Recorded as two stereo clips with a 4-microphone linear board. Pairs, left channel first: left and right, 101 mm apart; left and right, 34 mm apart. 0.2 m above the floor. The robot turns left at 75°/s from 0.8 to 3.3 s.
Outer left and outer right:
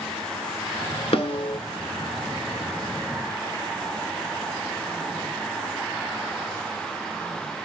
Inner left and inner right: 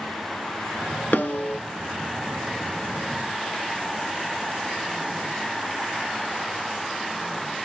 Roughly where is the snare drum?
Left.